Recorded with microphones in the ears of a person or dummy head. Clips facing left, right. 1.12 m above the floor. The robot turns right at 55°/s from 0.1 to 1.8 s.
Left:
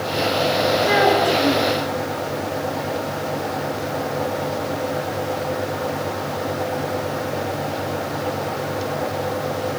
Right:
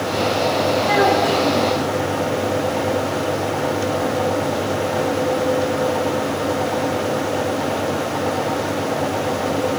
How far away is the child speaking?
About 8.5 m.